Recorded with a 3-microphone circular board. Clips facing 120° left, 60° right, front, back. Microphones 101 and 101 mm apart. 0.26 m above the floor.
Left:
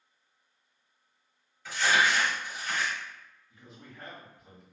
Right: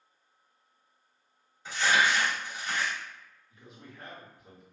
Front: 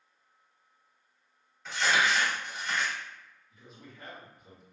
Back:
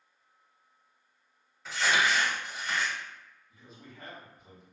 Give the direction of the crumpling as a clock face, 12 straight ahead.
3 o'clock.